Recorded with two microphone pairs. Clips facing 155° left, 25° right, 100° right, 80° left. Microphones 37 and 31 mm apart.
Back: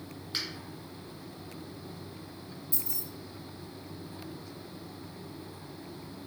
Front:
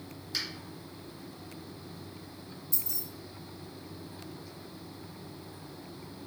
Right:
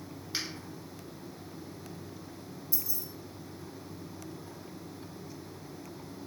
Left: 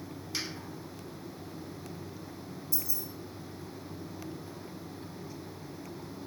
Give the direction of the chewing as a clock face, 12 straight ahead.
No chewing in this recording.